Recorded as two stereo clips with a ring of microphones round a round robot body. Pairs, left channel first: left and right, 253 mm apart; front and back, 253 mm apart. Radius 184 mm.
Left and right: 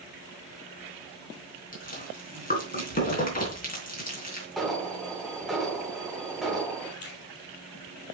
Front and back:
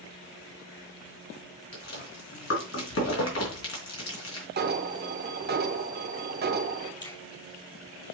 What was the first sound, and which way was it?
Chewing, 35° left.